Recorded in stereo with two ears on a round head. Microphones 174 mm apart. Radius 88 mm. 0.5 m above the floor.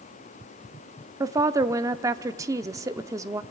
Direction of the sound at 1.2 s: 15° right (ahead or behind).